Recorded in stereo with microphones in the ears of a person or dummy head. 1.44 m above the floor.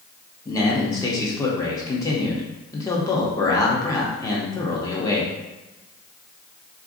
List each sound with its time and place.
0.5 s a man speaking: 10° left (ahead or behind), 0.6 m